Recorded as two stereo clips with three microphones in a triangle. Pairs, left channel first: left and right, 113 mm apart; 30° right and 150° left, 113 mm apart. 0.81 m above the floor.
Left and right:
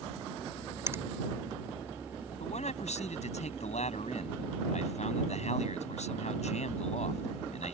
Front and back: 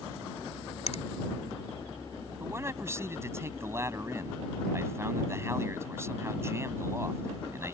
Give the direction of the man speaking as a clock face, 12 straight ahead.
9 o'clock.